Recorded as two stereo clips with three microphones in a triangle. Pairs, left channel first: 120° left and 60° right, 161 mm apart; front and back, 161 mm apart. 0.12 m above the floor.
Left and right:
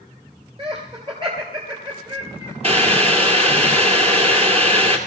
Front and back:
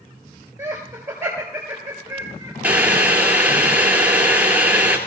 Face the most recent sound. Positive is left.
turn(degrees=-100)